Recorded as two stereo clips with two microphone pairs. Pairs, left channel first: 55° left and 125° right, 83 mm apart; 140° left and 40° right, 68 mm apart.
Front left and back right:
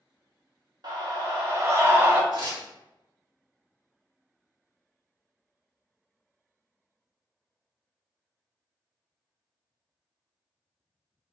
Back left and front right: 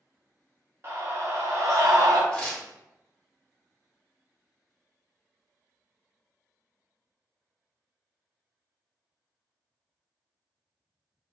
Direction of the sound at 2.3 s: 145° right.